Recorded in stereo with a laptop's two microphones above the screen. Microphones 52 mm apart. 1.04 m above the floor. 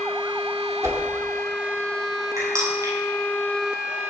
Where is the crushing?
85° right, 9 m.